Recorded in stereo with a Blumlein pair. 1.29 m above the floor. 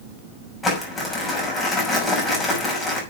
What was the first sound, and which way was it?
Crumpling, 15° left.